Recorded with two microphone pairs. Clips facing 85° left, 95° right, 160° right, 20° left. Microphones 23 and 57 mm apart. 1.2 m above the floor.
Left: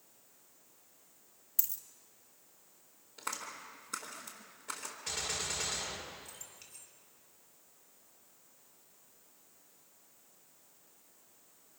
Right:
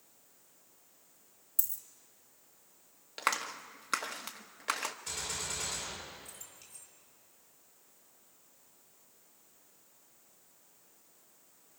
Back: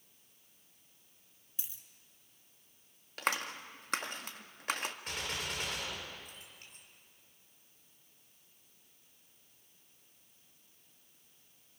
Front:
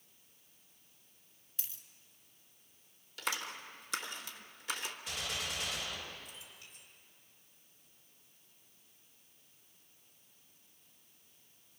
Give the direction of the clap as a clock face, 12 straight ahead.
4 o'clock.